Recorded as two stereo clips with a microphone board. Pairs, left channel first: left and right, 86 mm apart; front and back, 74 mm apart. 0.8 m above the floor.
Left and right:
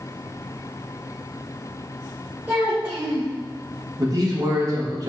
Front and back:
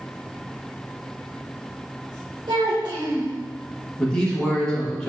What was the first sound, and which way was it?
A child speaking, 165° right.